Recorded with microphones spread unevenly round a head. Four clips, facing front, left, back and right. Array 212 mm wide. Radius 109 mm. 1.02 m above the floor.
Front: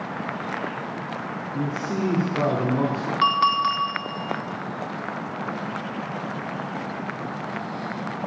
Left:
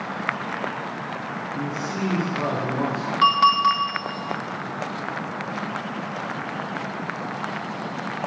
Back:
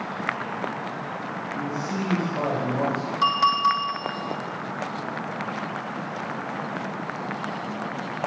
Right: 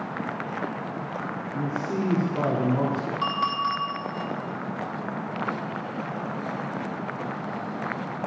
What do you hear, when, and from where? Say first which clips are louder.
1.5 s a man speaking: right 1 dB, front 3 dB; 40° right, 2 m
3.2 s a clink: left 11 dB, even; 50° left, 1.6 m